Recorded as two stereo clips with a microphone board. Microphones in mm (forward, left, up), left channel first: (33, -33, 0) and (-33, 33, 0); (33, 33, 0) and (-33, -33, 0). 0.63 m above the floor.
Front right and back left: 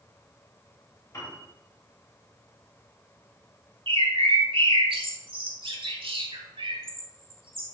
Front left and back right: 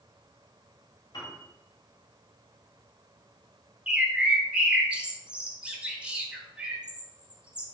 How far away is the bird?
About 1.4 m.